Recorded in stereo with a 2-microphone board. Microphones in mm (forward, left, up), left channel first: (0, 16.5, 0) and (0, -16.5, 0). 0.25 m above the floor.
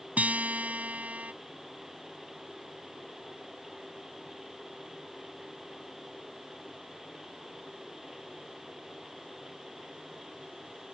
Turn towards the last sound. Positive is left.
turn(degrees=-45)  # may be behind; listen again after turning